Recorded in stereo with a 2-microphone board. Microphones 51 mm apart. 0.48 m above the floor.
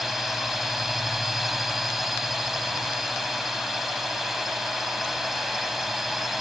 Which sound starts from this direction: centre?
A drone, at 0.0 s.